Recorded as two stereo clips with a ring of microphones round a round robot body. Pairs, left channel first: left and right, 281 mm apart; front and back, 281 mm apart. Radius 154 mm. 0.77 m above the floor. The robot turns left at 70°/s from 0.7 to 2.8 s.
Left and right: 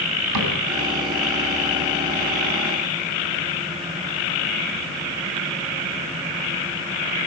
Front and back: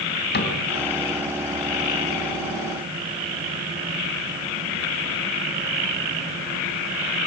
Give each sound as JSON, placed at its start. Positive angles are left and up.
{"t": 0.3, "sound": "a cupboard door", "azimuth_deg": -55, "distance_m": 3.5}